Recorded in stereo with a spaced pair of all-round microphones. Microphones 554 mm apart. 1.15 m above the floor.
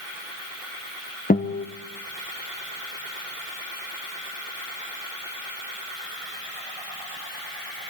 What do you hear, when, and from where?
1.3 s a guitar: 15° left (ahead or behind), 0.8 m